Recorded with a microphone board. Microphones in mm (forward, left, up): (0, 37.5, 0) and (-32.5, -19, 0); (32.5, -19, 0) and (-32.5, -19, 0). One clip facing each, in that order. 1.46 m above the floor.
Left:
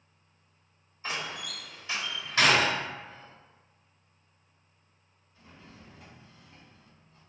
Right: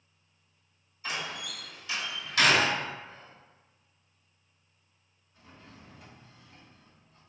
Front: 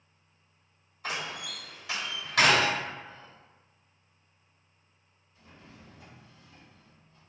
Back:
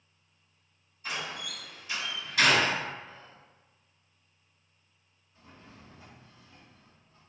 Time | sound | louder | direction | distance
1.0 | a door slam | even, front 1 dB | straight ahead | 1.4 m
3.0 | whispering | left 1 dB, front 1 dB | 170° left | 2.0 m
5.3 | a drawer | even, even | 150° left | 1.8 m